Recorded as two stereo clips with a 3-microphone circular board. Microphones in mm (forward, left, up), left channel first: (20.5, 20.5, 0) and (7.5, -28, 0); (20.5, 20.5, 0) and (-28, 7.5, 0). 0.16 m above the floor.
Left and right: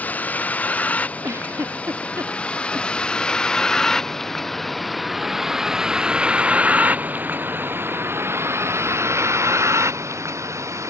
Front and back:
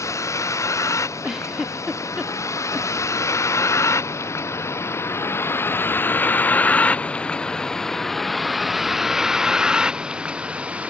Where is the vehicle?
20° left; by 10.9 s 100° right.